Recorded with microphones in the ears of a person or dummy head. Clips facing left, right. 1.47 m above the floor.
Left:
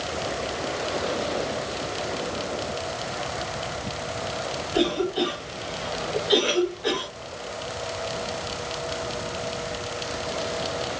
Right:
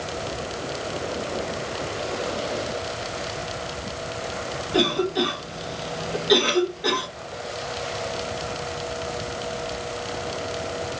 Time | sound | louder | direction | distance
4.7 | a cough | right 1 dB | 70° right (ahead or behind) | 2 m